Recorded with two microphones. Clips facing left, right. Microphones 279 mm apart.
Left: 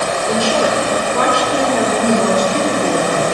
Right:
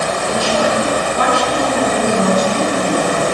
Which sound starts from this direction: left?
A woman speaking, at 0.3 s.